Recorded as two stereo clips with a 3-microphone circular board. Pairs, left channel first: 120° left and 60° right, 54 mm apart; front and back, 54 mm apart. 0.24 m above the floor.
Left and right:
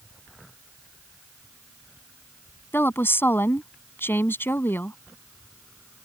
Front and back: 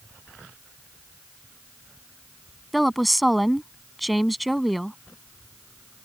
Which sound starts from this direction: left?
A woman speaking, at 2.7 s.